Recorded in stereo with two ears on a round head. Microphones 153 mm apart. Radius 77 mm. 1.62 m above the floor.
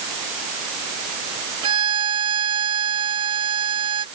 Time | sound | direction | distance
1.6 | a violin | 30° right (ahead or behind) | ?